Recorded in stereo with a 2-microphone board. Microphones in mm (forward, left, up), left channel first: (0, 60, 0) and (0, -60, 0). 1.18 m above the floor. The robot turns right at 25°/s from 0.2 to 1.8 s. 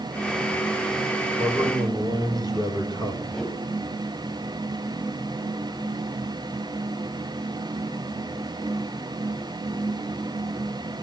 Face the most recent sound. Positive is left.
turn(degrees=5)  # may be behind; listen again after turning